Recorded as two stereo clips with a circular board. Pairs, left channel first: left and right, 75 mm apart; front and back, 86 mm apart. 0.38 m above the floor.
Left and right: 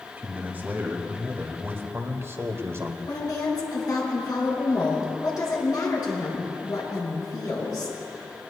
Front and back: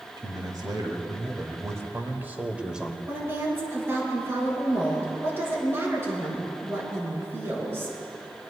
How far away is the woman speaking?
About 4.5 m.